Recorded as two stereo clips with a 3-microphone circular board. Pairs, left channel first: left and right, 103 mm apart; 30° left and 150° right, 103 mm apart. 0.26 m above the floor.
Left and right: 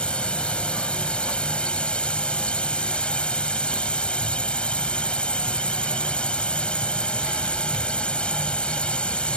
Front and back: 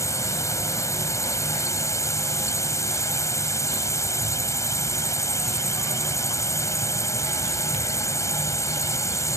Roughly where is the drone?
Ahead.